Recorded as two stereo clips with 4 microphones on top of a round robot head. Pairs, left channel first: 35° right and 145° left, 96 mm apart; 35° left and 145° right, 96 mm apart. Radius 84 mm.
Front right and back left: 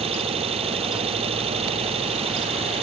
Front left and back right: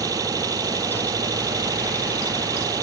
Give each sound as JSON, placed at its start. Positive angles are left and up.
{"t": 0.0, "sound": "an engine running", "azimuth_deg": 160}